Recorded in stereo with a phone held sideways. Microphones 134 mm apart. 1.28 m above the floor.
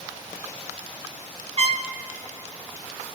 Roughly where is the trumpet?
Right.